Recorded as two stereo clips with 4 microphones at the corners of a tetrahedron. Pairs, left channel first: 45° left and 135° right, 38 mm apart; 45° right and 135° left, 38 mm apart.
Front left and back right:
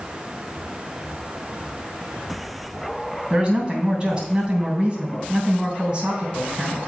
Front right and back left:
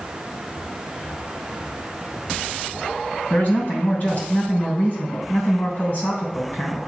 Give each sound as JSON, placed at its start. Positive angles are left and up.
{"t": 3.3, "sound": "a man speaking", "azimuth_deg": -70, "distance_m": 3.0}